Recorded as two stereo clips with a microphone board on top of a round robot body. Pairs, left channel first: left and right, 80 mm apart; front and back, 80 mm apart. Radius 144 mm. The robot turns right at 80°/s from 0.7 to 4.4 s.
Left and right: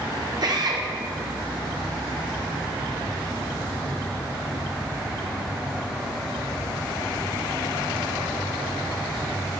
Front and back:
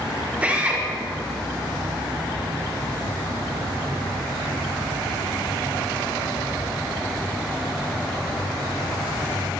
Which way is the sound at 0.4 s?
110° right.